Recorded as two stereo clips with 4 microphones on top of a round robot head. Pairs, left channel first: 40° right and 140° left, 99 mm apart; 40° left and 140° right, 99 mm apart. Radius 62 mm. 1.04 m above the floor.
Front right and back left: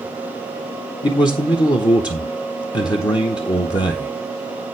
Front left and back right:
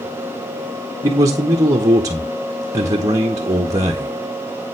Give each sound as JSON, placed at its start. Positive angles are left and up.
{"t": 1.0, "sound": "a man speaking", "azimuth_deg": -85, "distance_m": 1.0}